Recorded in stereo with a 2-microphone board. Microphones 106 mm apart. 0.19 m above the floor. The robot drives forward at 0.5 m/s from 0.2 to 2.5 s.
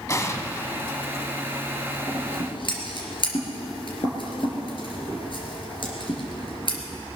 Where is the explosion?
30° left (ahead or behind), 1.0 m; by 1.0 s 25° left (ahead or behind), 1.2 m.